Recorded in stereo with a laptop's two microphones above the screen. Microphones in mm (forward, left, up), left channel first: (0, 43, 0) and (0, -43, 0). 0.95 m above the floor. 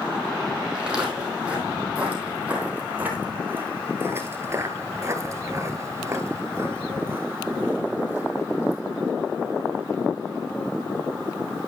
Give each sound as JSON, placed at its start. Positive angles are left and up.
{"t": 0.8, "sound": "footsteps", "side_deg": -10, "distance_m": 3.0}